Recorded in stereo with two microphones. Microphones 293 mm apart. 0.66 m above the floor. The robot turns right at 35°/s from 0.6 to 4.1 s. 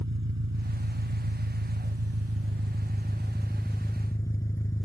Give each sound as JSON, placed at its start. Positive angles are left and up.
{"t": 0.0, "sound": "an engine running", "azimuth_deg": -110}